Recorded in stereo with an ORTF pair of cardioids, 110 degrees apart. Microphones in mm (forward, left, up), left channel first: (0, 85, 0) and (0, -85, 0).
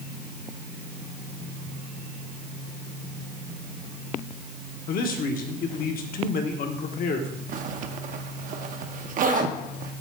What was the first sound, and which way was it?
A man speaking, 65° left.